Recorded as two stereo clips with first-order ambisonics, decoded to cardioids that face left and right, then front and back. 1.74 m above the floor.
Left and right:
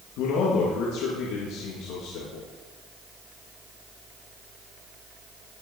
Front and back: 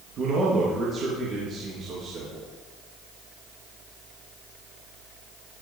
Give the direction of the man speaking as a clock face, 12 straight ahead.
8 o'clock.